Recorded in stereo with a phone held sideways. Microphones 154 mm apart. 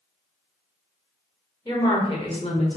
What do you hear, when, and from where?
1.6 s a woman speaking: 25° left (ahead or behind), 1.1 m; by 2.8 s 50° left (ahead or behind), 0.6 m